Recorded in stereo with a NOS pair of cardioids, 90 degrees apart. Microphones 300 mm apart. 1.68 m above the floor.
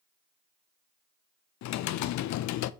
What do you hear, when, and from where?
1.6 s typing on a keyboard: 65° left, 0.6 m